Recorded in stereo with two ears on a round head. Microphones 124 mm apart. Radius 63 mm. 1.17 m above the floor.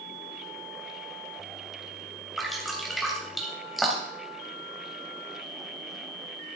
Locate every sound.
2.4 s dripping: centre (ahead or behind), 3 m